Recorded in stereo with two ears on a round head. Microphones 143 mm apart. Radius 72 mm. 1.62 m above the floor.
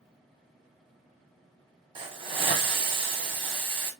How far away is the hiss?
About 1.3 m.